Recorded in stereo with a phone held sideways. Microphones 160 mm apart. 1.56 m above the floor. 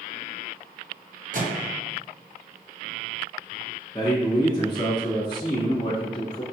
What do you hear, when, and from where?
1.3 s a microwave: 55° right (ahead or behind), 0.8 m
3.9 s a man speaking: 25° left (ahead or behind), 1.5 m